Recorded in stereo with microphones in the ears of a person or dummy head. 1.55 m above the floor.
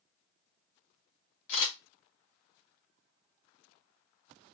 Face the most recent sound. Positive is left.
turn(degrees=80)